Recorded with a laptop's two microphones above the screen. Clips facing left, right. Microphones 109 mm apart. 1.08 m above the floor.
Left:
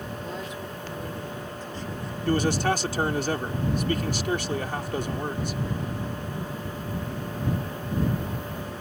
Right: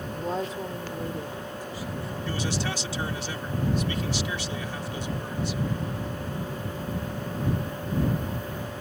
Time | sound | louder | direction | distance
0.1 | a woman speaking | right 8 dB | 45° right (ahead or behind) | ?
2.3 | a man speaking | left 9 dB | 55° left (ahead or behind) | ?